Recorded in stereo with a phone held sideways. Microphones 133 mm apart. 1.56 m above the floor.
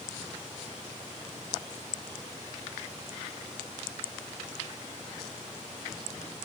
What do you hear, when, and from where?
Only background noise.